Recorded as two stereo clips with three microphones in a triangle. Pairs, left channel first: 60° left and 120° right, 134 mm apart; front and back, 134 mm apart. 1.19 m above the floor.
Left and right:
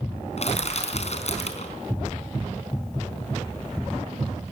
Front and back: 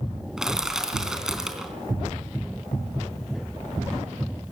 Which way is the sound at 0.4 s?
95° left.